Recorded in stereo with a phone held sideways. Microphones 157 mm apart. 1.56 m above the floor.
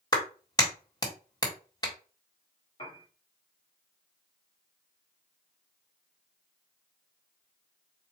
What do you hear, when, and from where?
0.1 s a clap: 25° left (ahead or behind), 1.3 m
2.8 s a piano: 35° left (ahead or behind), 1.5 m